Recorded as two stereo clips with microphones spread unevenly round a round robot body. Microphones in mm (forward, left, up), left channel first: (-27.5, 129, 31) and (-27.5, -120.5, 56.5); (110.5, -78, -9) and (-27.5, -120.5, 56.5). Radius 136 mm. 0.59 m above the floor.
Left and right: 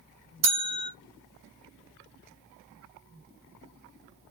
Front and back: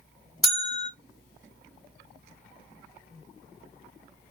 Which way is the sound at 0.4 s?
55° right.